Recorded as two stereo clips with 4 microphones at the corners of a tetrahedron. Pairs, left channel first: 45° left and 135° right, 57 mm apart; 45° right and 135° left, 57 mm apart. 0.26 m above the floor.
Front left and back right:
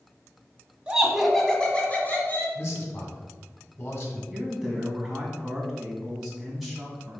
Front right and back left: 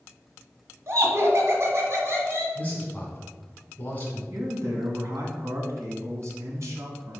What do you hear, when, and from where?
0.9 s laughter: 155° left, 1.7 m; by 2.5 s 95° left, 2.5 m
2.5 s a man speaking: 10° left, 1.8 m
4.3 s a man speaking: 135° left, 2 m